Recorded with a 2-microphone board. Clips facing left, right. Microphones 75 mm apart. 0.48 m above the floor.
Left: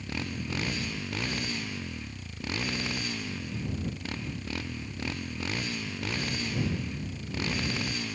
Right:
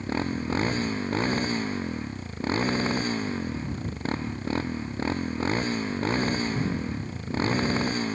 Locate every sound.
0.0 s a motorcycle: 35° right (ahead or behind)